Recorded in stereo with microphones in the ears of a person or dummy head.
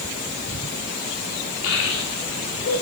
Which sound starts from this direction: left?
A child speaking, at 1.6 s.